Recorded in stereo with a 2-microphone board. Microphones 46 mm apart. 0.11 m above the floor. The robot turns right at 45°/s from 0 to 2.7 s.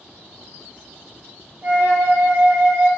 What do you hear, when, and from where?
1.6 s a flute: 105° right, 0.8 m; by 2.9 s 55° right, 0.8 m